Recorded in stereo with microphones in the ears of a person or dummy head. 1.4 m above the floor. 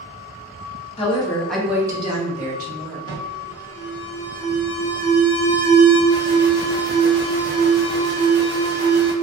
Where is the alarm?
25° left (ahead or behind), 1.1 m.